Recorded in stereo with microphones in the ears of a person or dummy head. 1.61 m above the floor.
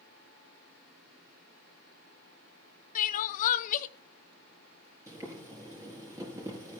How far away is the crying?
About 0.8 m.